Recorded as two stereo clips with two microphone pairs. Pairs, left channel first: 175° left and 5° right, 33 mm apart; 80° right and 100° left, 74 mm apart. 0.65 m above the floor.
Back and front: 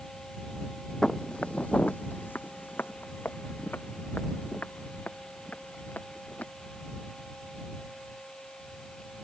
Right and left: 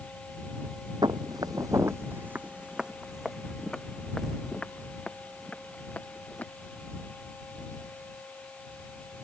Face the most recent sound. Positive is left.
turn(degrees=-155)